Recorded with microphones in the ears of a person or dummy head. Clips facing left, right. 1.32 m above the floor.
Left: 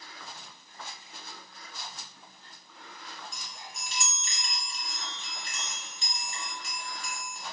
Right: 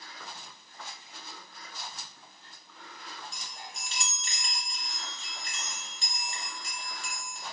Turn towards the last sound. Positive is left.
turn(degrees=-25)  # may be behind; listen again after turning